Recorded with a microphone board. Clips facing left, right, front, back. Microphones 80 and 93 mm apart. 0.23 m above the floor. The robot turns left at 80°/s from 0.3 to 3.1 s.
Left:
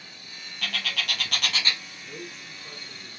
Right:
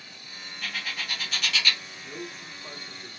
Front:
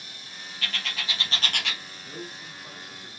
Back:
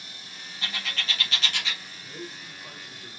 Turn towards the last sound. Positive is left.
turn(degrees=-110)